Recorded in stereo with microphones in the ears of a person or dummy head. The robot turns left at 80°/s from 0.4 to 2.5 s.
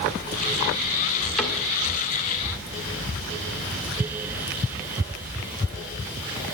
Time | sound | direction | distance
1.4 | a cupboard door | 5° left (ahead or behind) | 1.7 m